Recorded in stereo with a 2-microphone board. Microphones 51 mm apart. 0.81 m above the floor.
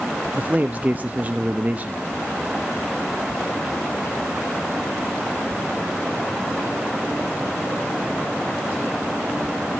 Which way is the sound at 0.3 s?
30° right (ahead or behind).